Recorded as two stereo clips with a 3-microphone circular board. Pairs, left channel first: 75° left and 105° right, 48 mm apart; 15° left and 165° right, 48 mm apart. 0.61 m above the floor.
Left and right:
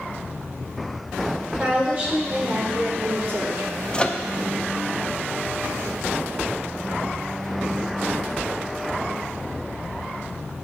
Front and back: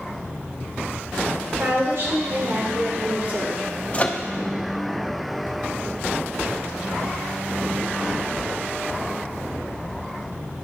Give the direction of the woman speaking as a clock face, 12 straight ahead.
6 o'clock.